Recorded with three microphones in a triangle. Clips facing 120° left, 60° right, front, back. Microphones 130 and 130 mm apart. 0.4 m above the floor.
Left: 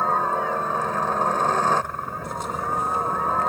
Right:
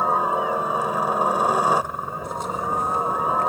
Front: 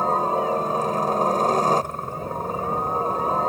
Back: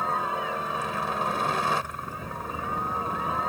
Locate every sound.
0.0 s a helicopter: 15° left